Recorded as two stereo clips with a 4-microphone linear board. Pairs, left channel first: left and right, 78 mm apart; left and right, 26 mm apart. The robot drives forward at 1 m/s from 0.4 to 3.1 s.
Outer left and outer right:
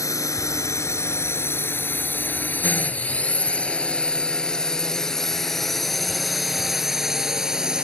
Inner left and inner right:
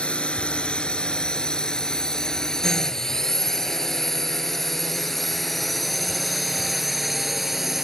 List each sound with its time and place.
0.0 s a drone: 45° left (ahead or behind); by 7.8 s 10° right (ahead or behind)